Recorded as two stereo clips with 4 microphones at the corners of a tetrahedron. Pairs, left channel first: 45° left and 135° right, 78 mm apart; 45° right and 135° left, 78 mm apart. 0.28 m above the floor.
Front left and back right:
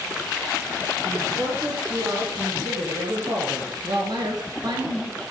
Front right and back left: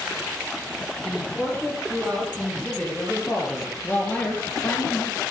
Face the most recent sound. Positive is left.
turn(degrees=-105)